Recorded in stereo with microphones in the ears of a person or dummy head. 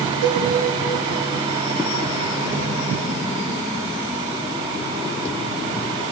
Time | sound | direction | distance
0.2 | a cowbell | 55° right (ahead or behind) | 2 m